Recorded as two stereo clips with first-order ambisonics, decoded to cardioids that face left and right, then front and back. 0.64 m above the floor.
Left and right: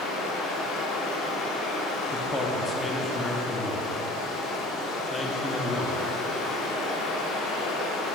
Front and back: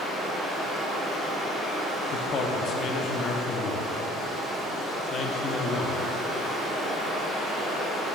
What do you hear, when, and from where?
0.0 s running water: 105° left, 1.0 m
2.1 s a man speaking: 25° left, 0.6 m